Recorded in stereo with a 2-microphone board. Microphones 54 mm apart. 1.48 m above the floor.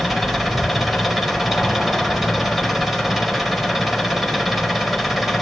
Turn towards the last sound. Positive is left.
turn(degrees=-5)  # may be behind; listen again after turning